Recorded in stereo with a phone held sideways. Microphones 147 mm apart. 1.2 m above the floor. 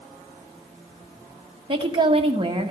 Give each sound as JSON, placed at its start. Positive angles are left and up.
{"t": 1.7, "sound": "a woman speaking", "side_deg": -35, "distance_m": 1.1}